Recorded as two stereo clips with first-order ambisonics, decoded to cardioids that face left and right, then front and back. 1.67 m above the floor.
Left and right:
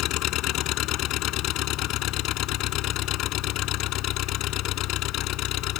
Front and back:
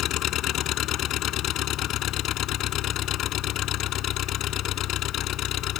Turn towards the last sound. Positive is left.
turn(degrees=50)